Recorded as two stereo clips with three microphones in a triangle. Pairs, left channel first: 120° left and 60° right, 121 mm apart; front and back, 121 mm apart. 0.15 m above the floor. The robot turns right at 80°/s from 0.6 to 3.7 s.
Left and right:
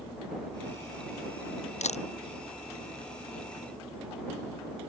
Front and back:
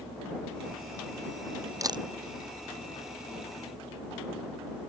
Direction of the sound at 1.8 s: 120° left.